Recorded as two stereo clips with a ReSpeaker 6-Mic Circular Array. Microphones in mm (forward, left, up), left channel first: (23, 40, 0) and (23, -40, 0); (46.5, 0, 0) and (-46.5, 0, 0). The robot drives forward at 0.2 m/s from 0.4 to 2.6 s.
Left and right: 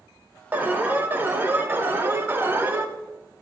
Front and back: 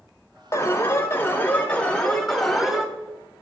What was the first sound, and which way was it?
An alarm, 35° right.